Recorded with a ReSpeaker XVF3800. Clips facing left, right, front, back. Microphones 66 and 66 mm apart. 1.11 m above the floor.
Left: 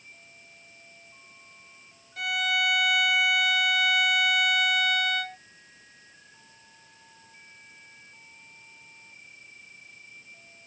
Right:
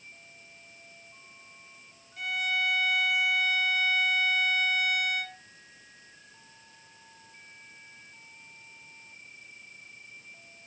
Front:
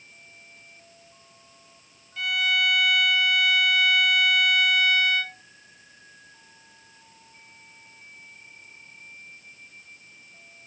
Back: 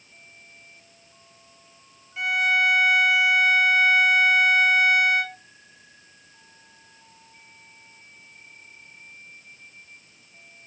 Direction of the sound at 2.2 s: 110° left.